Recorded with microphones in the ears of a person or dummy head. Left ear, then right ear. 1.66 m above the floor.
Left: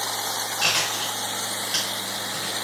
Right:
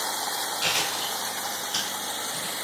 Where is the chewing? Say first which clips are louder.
Left 4 dB; 10° left (ahead or behind), 1.5 m.